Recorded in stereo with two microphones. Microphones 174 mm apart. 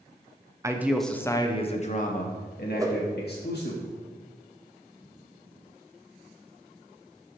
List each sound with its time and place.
0.6 s a man speaking: 20° right (ahead or behind), 0.6 m; by 3.8 s 75° left (ahead or behind), 1.6 m
2.8 s a whoosh: 20° right (ahead or behind), 0.6 m